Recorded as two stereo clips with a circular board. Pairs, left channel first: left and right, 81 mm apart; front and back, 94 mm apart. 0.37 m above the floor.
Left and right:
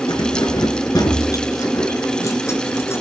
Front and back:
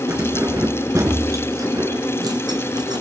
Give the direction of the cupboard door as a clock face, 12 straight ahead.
I don't hear a cupboard door.